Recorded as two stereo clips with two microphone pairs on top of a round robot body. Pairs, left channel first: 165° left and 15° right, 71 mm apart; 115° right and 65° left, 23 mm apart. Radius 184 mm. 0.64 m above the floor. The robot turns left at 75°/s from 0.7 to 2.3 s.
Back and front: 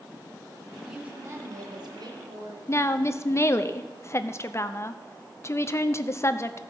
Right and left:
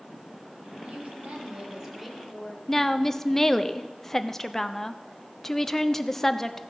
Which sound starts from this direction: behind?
A woman speaking, at 2.7 s.